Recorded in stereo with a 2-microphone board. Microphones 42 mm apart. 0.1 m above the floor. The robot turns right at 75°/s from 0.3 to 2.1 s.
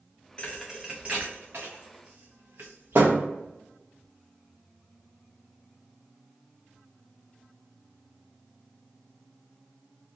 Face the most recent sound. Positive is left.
turn(degrees=-75)  # may be behind; listen again after turning